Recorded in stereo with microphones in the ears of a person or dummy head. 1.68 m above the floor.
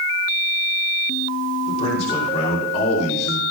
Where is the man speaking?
45° left (ahead or behind), 6 m.